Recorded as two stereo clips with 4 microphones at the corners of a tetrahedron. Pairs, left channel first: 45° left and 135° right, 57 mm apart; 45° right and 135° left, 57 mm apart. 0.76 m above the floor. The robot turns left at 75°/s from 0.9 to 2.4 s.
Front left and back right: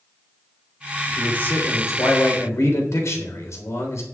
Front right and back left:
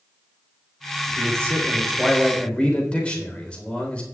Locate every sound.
1.1 s a man speaking: 120° left, 3.5 m; by 4.0 s 25° left, 3.5 m